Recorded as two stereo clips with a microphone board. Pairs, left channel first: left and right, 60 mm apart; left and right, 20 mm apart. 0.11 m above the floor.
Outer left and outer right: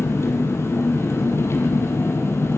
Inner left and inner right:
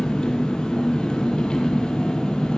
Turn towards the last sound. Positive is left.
turn(degrees=50)  # may be behind; listen again after turning